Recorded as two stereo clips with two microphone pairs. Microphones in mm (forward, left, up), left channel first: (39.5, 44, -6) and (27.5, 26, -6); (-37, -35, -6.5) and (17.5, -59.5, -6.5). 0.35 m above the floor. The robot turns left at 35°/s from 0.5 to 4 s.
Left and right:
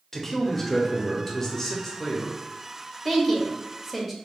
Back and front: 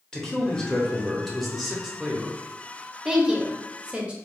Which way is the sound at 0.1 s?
100° left.